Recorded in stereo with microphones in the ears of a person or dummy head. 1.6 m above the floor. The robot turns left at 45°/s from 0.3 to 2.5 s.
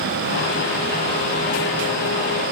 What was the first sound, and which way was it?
Only background noise.